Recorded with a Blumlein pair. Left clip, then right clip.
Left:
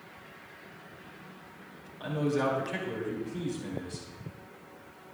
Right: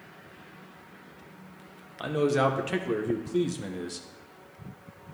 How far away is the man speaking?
About 1.2 m.